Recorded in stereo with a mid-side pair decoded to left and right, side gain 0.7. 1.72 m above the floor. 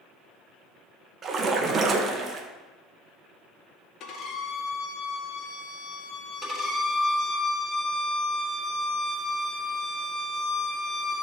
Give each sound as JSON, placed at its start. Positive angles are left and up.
{"t": 1.2, "sound": "a splash", "azimuth_deg": -30, "distance_m": 1.7}
{"t": 4.0, "sound": "a violin", "azimuth_deg": 50, "distance_m": 2.0}
{"t": 6.4, "sound": "a violin", "azimuth_deg": 10, "distance_m": 5.0}